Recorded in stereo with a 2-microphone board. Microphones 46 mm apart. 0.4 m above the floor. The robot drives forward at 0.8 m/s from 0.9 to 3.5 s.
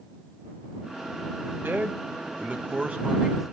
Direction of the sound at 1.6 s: 50° right (ahead or behind).